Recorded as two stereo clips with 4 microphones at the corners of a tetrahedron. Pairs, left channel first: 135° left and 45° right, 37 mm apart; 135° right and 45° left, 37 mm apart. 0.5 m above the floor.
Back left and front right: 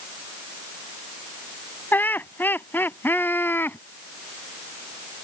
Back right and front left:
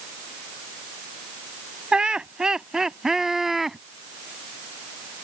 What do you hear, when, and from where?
1.9 s laughter: 110° left; by 3.8 s 130° left